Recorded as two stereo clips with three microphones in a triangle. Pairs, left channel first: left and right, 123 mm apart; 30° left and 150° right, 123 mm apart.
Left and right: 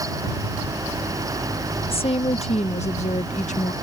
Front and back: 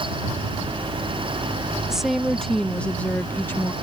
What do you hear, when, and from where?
1.9 s a woman speaking: 125° left; by 3.7 s 100° left